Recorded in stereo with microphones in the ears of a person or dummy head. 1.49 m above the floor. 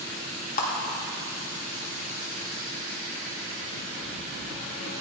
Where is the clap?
50° left (ahead or behind), 2 m.